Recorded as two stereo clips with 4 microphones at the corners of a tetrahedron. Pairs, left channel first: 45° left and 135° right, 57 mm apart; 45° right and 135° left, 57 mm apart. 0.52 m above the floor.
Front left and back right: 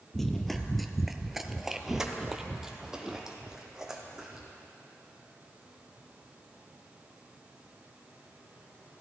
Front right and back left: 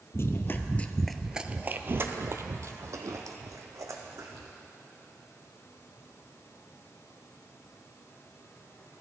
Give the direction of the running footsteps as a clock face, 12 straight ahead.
1 o'clock.